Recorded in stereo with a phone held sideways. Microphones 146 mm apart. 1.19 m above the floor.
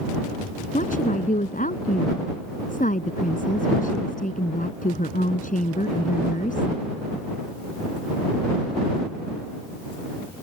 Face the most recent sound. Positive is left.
turn(degrees=65)  # may be behind; listen again after turning